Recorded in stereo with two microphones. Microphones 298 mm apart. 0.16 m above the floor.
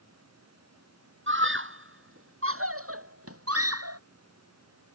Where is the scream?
40° right (ahead or behind); by 4.0 s 55° right (ahead or behind).